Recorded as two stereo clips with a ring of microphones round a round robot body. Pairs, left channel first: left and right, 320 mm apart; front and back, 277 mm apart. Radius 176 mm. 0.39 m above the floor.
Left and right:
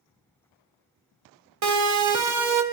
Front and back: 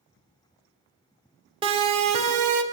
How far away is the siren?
About 2.5 m.